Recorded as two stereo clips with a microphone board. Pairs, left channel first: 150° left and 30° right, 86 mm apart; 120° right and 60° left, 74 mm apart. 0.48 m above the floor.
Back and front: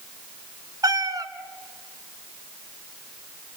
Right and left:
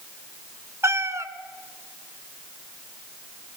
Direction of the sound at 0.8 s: 10° left.